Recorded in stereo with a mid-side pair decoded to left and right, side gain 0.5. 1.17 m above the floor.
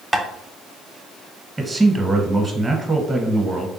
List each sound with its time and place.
0.1 s tapping: 5° right, 0.7 m
1.6 s a man speaking: 15° right, 0.9 m